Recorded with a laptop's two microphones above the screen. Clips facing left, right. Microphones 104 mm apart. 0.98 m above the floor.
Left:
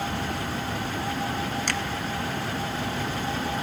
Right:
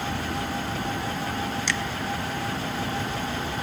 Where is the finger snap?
50° left (ahead or behind), 0.6 m.